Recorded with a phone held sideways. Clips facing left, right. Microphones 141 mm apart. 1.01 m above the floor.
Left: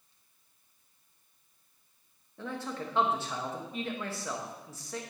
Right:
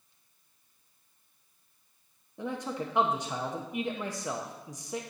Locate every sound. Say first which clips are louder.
2.4 s a man speaking: right 3 dB; 15° right (ahead or behind), 0.8 m